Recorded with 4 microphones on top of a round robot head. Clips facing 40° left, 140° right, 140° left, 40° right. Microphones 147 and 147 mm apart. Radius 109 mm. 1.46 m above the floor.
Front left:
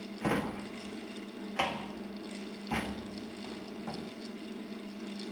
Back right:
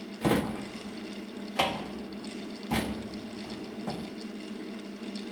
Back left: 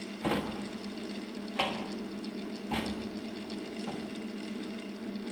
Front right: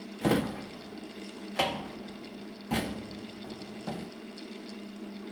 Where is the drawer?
85° right, 1.1 m.